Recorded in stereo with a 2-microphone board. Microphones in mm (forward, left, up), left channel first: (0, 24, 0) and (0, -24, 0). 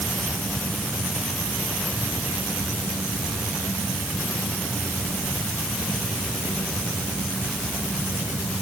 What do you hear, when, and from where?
Only background noise.